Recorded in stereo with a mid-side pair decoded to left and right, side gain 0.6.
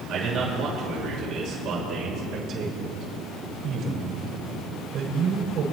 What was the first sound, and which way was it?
A man speaking, 60° right.